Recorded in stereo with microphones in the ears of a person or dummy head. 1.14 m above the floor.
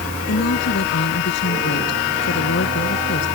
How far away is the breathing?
No breathing in this recording.